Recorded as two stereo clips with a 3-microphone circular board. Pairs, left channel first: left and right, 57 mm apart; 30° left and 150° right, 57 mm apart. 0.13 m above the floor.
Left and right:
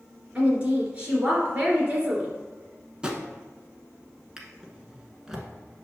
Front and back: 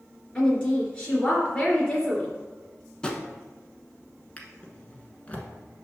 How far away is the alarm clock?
No alarm clock in this recording.